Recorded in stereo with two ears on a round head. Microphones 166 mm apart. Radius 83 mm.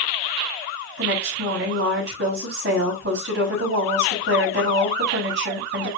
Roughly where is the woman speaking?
Right.